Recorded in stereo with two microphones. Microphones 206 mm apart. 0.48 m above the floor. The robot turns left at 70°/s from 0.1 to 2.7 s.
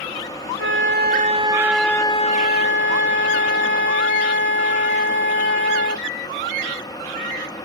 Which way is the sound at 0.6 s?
95° right.